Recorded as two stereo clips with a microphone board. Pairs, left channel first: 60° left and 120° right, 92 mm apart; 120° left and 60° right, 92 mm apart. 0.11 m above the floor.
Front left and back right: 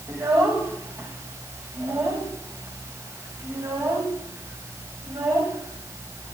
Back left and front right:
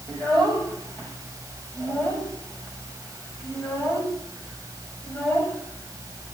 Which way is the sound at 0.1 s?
170° right.